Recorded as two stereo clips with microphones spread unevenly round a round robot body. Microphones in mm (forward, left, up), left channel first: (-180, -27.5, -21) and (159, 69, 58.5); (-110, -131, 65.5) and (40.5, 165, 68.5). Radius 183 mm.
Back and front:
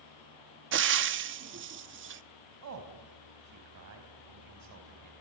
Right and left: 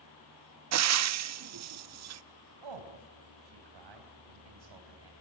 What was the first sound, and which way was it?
Frying, 75° left.